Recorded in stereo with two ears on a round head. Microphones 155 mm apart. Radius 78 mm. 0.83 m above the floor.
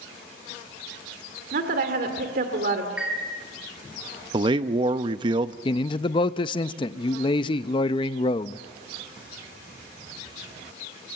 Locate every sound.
1.5 s a woman speaking: 60° right (ahead or behind), 2.5 m
3.0 s a chime: 5° right (ahead or behind), 3 m
4.3 s a man speaking: 25° right (ahead or behind), 0.6 m
5.7 s a man speaking: 30° left (ahead or behind), 0.5 m